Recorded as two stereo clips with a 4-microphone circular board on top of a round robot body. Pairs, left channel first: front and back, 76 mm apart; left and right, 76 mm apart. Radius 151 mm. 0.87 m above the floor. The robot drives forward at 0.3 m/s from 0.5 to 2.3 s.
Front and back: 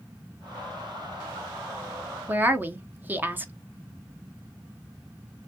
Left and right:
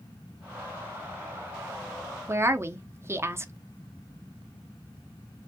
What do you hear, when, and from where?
2.3 s a woman speaking: 125° right, 0.7 m